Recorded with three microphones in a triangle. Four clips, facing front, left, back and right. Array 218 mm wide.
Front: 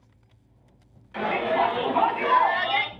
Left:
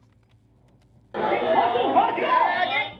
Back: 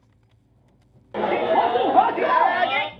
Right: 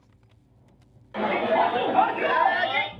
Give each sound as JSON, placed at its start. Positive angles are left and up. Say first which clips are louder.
{"t": 1.1, "sound": "a shout", "louder": "left 2 dB, back 4 dB", "azimuth_deg": 145, "distance_m": 2.5}